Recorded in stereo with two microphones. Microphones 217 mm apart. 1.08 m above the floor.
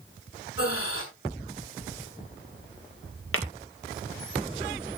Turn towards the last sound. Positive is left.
turn(degrees=75)  # may be behind; listen again after turning